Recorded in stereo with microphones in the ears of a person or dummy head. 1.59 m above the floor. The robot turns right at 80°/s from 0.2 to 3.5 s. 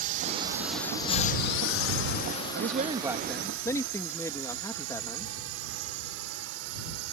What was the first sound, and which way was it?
A drone, 45° right (ahead or behind).